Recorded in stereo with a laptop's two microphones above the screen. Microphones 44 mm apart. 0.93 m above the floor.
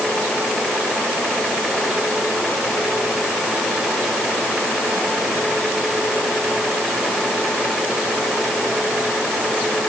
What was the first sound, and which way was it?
Only background noise.